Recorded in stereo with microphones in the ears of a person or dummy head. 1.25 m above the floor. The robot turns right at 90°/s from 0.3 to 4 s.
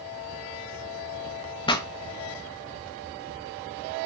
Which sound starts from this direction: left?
A pop, at 1.7 s.